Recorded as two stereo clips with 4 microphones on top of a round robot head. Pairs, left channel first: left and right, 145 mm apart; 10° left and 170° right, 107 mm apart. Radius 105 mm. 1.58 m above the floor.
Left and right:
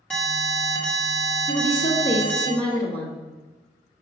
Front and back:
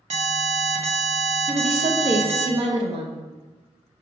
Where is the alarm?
175° left, 1.2 m.